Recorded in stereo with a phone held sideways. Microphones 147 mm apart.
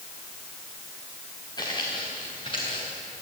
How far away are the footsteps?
About 5.5 m.